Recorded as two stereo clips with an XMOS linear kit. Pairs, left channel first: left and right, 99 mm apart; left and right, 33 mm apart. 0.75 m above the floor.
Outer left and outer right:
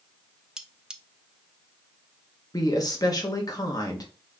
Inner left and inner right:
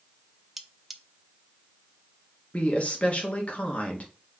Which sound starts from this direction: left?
A woman speaking, at 2.5 s.